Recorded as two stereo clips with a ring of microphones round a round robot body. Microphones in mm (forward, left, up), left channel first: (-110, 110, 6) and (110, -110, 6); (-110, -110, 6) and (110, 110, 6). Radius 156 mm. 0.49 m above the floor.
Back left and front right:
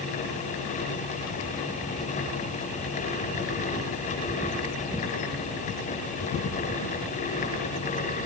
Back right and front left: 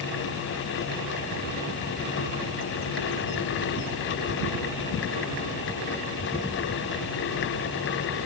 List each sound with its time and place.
Only background noise.